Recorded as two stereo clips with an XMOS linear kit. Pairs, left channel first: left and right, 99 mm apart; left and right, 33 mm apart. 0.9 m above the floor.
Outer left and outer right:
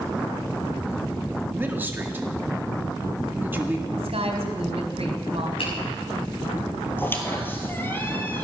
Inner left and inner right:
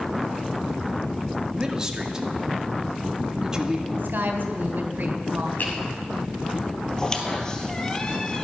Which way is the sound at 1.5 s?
20° right (ahead or behind).